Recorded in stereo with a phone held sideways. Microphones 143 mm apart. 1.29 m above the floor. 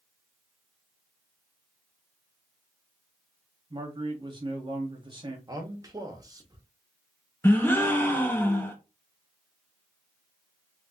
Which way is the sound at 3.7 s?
35° right (ahead or behind).